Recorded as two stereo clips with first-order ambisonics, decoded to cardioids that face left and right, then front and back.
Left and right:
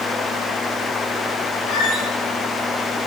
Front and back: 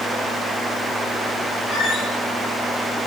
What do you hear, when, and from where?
1.7 s a squeak: 90° left, 8 m